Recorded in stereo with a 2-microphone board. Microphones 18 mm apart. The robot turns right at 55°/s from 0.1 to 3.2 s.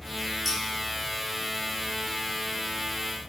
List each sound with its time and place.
0.5 s scissors: 5° left (ahead or behind), 3.5 m; by 0.6 s 10° left (ahead or behind), 3.5 m